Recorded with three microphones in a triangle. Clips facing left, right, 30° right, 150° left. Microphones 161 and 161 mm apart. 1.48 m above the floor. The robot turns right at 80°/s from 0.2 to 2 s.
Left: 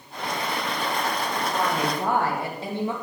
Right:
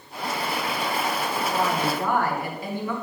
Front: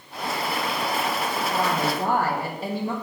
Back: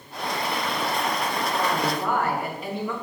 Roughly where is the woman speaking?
Ahead.